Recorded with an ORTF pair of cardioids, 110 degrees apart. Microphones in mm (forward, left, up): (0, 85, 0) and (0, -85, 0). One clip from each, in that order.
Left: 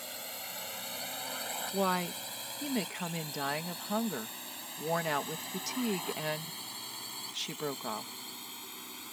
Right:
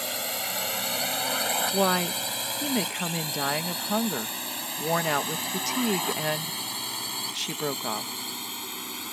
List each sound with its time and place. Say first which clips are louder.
0.0 s a drone: right 12 dB; 65° right; by 9.1 s 55° right
1.7 s a woman speaking: right 4 dB; 35° right